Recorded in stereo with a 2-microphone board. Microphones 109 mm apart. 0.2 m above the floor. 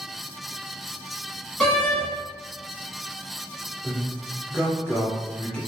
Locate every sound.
1.6 s a door slam: 5° left (ahead or behind), 1.3 m
3.8 s a man speaking: 5° left (ahead or behind), 1.9 m